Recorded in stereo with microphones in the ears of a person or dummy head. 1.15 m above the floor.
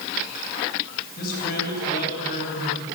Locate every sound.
1.2 s a man speaking: 50° left (ahead or behind), 9 m